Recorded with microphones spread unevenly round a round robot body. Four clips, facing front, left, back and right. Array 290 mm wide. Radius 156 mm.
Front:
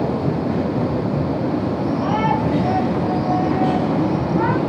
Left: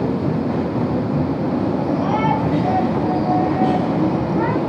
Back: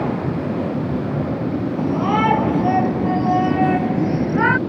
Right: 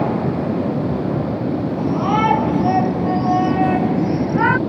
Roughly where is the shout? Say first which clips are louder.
Right 1 dB, back 5 dB; behind.